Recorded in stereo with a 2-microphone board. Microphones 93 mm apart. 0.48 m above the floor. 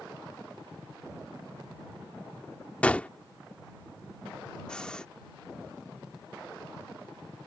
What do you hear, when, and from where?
2.8 s a gunshot: 15° left (ahead or behind)
4.7 s breathing: 10° left (ahead or behind)